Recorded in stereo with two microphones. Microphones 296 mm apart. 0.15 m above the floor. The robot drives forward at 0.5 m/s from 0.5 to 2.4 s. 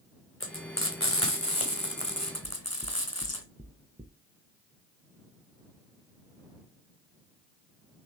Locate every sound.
0.4 s frying: 40° left (ahead or behind), 3.5 m; by 3.4 s 55° left (ahead or behind), 3 m
2.4 s knocking: 25° right (ahead or behind), 0.9 m